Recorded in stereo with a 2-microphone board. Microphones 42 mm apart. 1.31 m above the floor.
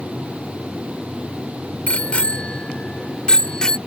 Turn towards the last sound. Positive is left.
turn(degrees=15)  # may be behind; listen again after turning